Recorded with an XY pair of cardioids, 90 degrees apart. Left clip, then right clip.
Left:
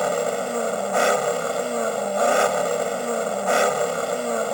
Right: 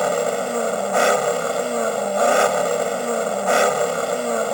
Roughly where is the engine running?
Ahead.